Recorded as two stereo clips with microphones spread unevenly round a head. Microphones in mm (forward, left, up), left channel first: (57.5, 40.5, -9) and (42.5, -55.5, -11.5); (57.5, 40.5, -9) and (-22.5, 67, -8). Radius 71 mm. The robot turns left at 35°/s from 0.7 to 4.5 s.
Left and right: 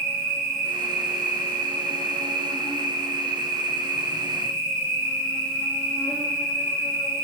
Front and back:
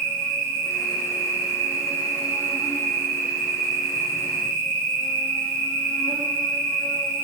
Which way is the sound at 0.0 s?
175° right.